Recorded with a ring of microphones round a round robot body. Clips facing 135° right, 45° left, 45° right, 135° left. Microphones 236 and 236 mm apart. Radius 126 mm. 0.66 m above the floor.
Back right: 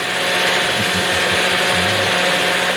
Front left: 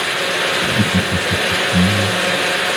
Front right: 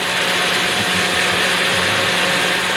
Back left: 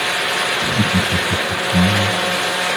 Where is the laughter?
90° left.